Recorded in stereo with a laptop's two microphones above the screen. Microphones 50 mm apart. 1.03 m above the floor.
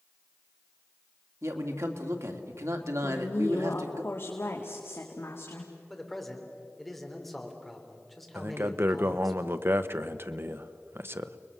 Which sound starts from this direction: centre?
A man speaking, at 5.9 s.